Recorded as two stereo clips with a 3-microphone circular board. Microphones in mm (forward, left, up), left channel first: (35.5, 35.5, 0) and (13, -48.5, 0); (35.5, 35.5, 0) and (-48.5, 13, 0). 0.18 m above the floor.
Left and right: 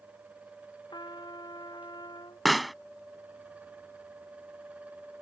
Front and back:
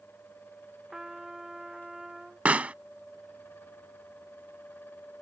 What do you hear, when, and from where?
0.9 s a trumpet: 110° left
2.5 s a pop: 165° left